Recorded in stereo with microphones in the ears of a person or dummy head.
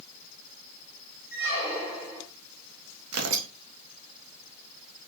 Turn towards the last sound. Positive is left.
turn(degrees=-80)